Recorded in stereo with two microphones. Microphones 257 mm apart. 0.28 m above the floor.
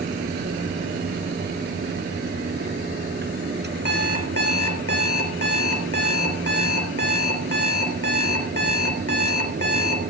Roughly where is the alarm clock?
Left.